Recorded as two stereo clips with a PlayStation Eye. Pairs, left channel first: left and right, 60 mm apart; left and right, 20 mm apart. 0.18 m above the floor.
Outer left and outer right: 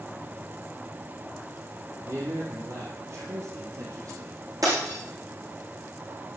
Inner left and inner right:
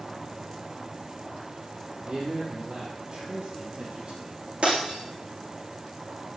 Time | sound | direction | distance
2.0 | a man speaking | 55° right (ahead or behind) | 4.5 m
4.6 | breaking glass | 70° right (ahead or behind) | 6.5 m